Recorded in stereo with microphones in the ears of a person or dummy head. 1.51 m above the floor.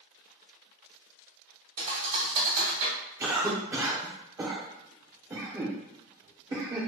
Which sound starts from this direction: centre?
A cough, at 3.2 s.